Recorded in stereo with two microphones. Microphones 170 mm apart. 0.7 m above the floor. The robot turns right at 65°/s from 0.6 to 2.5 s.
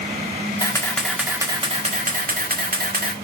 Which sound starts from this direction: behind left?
A camera shutter, at 0.6 s.